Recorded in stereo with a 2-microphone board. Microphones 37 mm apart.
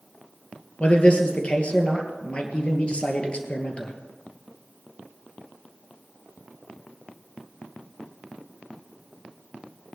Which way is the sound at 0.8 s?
35° left (ahead or behind).